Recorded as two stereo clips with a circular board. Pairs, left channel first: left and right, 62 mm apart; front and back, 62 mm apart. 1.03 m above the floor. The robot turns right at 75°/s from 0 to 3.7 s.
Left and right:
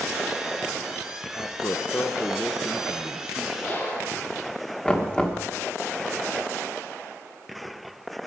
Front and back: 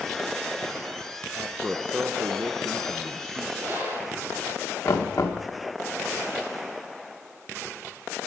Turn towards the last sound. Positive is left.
turn(degrees=15)